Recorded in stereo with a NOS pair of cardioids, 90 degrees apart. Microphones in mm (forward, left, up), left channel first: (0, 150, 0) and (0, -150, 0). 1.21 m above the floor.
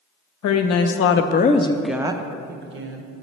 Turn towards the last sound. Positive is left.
turn(degrees=-50)